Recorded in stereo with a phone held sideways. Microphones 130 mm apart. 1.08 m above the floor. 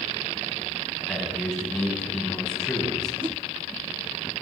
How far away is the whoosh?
About 0.7 m.